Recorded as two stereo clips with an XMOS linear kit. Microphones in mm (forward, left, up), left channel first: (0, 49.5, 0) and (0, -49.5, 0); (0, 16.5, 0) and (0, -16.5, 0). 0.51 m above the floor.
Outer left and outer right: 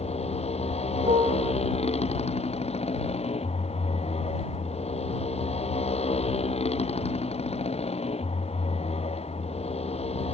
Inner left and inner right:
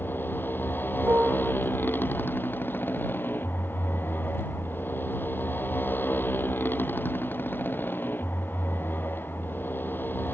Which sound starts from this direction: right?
A piano, at 1.0 s.